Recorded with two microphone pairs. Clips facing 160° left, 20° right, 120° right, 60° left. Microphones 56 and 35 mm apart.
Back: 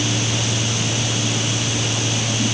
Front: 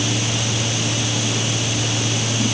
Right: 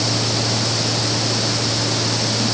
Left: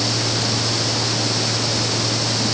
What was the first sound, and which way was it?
Only background noise.